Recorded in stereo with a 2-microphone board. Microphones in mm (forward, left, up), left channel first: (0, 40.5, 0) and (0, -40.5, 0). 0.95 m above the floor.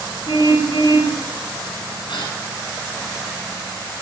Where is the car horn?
80° left, 6.5 m.